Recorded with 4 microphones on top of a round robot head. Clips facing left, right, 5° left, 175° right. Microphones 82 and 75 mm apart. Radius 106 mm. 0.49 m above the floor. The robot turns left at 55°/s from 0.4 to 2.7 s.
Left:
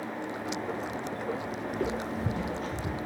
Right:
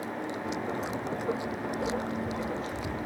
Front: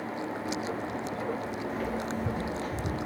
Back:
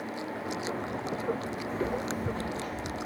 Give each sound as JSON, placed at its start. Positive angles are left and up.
{"t": 1.7, "sound": "footsteps", "azimuth_deg": 135, "distance_m": 1.6}